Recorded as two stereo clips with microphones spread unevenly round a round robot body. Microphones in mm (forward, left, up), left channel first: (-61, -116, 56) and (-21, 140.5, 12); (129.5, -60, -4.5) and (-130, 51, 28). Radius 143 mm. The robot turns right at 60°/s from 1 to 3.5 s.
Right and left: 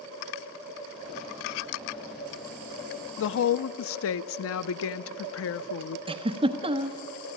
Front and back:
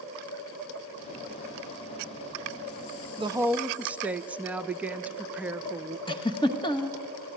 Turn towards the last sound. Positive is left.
turn(degrees=35)